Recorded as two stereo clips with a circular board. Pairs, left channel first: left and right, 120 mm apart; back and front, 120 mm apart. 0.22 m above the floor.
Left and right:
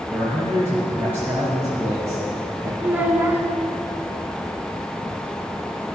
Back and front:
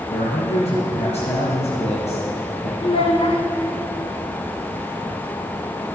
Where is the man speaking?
160° right, 3.5 m.